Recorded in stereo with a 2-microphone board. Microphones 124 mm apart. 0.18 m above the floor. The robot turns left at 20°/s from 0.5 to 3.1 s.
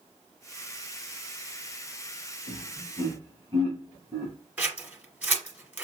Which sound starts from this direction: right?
Laughter, at 2.5 s.